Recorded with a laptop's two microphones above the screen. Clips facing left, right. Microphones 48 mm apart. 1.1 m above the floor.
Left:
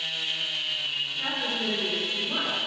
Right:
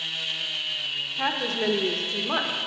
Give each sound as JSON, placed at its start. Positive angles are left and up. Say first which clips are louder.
{"t": 1.2, "sound": "a woman speaking", "louder": "right 6 dB", "side_deg": -70, "distance_m": 1.0}